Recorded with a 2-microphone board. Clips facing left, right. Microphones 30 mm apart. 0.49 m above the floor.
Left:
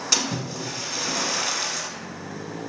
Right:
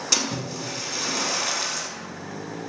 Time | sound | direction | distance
0.1 | a splash | 5° left (ahead or behind) | 0.7 m